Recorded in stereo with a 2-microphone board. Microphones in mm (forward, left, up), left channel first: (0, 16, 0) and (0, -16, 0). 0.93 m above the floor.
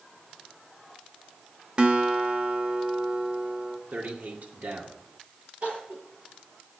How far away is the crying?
About 8 m.